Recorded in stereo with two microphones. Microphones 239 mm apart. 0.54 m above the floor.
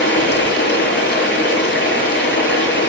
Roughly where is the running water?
Left.